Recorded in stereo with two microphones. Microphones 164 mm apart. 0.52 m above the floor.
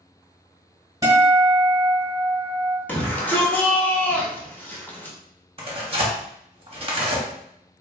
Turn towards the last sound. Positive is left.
turn(degrees=-35)  # may be behind; listen again after turning